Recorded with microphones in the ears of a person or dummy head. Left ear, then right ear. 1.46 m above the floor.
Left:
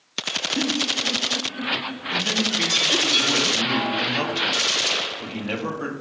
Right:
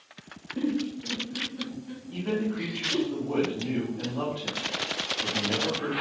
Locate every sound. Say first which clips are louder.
0.6 s a giggle: left 3 dB; 45° left (ahead or behind), 0.5 m
2.1 s a man speaking: left 9 dB; 80° left, 0.8 m